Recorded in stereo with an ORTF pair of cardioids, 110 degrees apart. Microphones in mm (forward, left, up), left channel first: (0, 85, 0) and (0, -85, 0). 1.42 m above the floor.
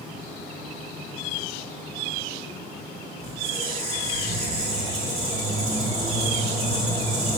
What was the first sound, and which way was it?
A squeak, 40° right.